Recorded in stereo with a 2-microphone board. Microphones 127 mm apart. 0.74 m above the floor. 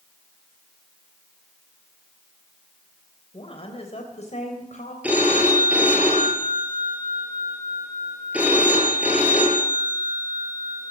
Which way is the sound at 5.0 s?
10° right (ahead or behind).